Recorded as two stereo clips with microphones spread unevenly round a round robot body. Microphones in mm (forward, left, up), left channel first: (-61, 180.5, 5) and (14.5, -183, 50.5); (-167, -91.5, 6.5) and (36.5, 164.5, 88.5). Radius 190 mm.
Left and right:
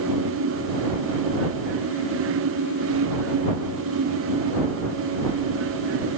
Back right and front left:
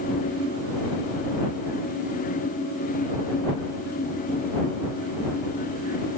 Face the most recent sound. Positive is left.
No sound to turn to.